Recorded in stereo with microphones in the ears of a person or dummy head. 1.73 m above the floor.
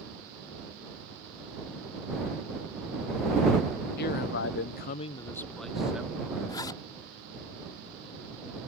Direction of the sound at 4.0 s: 55° left (ahead or behind).